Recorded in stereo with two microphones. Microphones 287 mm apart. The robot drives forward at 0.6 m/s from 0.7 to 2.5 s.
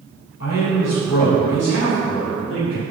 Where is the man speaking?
60° left (ahead or behind), 3.5 m; by 2.8 s 50° left (ahead or behind), 4 m.